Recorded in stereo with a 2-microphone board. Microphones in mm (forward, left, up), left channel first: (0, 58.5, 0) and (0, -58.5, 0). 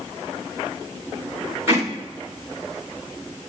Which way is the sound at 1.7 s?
20° right (ahead or behind).